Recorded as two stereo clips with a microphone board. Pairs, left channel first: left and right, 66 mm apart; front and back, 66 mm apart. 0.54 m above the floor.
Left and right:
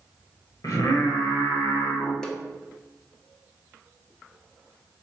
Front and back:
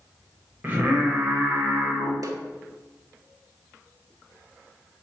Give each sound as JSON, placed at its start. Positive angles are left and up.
{"t": 0.6, "sound": "singing", "azimuth_deg": 120, "distance_m": 1.6}
{"t": 2.2, "sound": "a snare drum", "azimuth_deg": 170, "distance_m": 1.0}